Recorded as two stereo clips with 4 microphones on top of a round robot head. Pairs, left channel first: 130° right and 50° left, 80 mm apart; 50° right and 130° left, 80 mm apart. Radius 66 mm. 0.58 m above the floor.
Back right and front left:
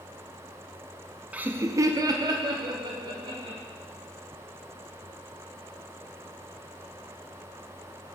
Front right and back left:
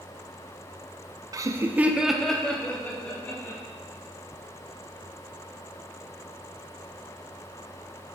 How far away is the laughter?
About 0.7 m.